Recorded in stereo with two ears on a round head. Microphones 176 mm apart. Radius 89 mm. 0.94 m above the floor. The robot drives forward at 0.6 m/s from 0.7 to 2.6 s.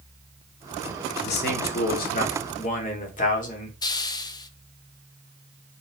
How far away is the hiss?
About 0.6 m.